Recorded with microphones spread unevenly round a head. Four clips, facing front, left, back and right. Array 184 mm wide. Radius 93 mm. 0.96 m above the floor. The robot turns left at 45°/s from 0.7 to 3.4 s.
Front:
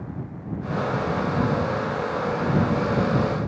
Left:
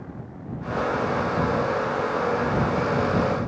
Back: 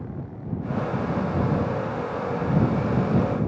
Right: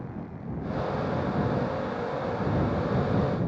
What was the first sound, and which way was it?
Only background noise.